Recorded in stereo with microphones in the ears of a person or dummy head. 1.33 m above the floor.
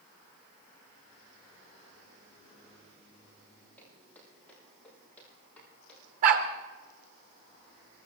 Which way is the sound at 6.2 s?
45° right (ahead or behind).